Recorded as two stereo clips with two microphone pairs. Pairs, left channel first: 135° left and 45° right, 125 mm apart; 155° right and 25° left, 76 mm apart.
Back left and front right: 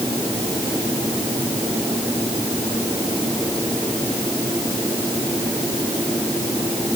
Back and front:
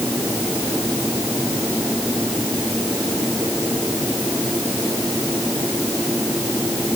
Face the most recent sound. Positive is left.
No sound to turn to.